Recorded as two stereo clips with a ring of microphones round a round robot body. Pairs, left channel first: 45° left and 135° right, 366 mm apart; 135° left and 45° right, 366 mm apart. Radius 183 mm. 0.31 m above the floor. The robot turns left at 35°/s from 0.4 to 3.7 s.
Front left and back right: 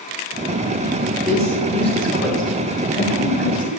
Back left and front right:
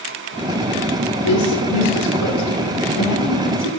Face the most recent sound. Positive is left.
turn(degrees=65)